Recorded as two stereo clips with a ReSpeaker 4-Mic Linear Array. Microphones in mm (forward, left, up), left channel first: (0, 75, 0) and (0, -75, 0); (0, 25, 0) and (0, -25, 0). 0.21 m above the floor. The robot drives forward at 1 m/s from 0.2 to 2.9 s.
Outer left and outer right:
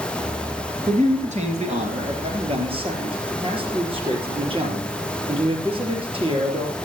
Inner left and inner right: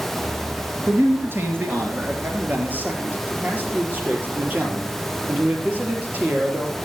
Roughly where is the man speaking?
Right.